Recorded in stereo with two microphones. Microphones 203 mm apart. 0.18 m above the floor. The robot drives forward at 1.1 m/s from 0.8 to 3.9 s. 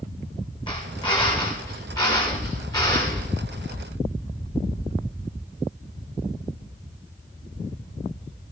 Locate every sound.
0.7 s a drill: 20° left (ahead or behind), 6 m; by 3.2 s 15° left (ahead or behind), 8.5 m